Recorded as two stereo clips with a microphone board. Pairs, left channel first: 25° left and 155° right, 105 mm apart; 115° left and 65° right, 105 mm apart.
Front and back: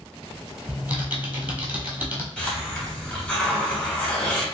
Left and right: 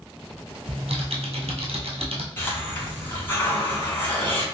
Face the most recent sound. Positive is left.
turn(degrees=85)